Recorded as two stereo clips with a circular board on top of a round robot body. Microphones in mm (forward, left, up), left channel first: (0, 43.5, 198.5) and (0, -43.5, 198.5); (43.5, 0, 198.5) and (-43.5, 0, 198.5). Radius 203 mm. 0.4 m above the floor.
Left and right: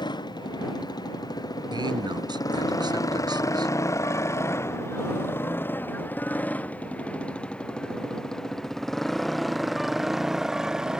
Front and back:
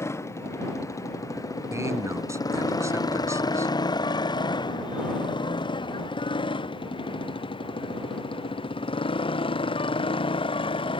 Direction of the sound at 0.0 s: 55° left.